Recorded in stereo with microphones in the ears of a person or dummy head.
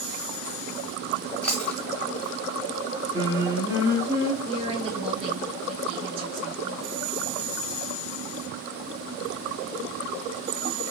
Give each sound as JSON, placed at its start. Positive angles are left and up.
{"t": 1.4, "sound": "chewing", "side_deg": 5, "distance_m": 1.1}
{"t": 3.1, "sound": "singing", "side_deg": -20, "distance_m": 1.5}
{"t": 4.4, "sound": "a woman speaking", "side_deg": -30, "distance_m": 1.0}